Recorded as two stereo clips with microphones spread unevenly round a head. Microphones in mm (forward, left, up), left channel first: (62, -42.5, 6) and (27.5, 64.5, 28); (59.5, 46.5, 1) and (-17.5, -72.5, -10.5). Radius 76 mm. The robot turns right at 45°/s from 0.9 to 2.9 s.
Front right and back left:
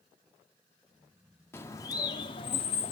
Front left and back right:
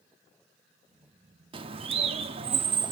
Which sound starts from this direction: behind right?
A bird, at 1.5 s.